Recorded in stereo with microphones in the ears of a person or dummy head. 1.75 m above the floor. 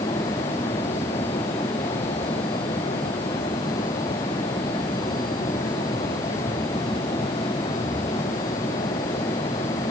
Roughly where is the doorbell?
No doorbell in this recording.